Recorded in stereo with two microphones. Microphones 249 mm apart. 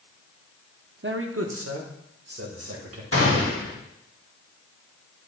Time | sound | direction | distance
1.0 | a man speaking | 50° right (ahead or behind) | 0.6 m
3.1 | a gunshot | 60° left (ahead or behind) | 2 m